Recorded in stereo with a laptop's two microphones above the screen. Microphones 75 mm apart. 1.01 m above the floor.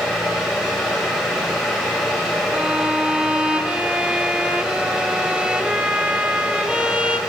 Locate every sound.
0.0 s a fan: 5° left (ahead or behind), 6 m
2.5 s a violin: 15° right (ahead or behind), 0.8 m